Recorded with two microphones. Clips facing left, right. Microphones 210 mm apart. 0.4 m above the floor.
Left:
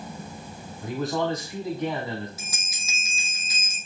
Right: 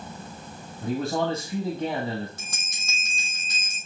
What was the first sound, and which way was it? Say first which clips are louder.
A man speaking: right 1 dB; 30° right (ahead or behind).